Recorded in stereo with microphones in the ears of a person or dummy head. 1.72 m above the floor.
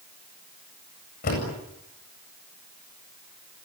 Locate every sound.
1.2 s a door slam: 45° left (ahead or behind), 8 m